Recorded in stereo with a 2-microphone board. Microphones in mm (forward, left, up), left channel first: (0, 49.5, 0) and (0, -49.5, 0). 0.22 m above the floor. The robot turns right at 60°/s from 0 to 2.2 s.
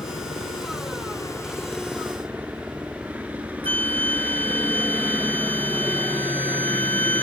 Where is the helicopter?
65° left; by 7.2 s 165° right.